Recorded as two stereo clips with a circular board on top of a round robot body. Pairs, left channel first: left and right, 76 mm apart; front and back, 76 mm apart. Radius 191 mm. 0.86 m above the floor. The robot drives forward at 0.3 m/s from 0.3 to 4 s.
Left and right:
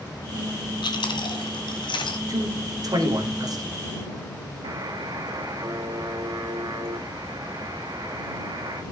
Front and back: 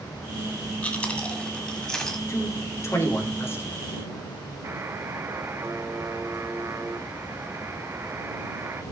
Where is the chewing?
70° left, 2 m; by 2.2 s 80° left, 2.0 m.